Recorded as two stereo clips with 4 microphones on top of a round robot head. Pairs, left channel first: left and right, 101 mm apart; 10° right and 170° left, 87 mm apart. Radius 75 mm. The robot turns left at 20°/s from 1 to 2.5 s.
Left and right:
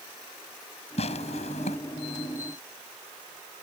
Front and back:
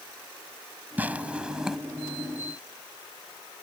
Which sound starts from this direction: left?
Tearing paper, at 1.0 s.